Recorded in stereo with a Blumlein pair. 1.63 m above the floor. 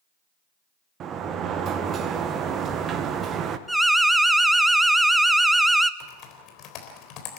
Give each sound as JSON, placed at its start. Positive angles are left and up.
{"t": 1.0, "sound": "a sliding door", "azimuth_deg": -30, "distance_m": 1.4}
{"t": 3.7, "sound": "an alarm", "azimuth_deg": -5, "distance_m": 0.8}
{"t": 6.0, "sound": "typing on a keyboard", "azimuth_deg": 35, "distance_m": 3.5}